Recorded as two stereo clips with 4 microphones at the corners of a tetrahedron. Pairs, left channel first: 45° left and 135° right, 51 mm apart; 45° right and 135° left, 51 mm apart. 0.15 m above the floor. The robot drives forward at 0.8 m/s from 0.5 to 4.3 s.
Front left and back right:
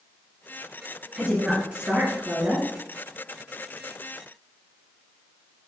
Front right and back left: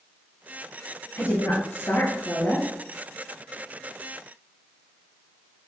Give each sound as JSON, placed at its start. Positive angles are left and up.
{"t": 1.2, "sound": "a woman speaking", "azimuth_deg": -65, "distance_m": 2.5}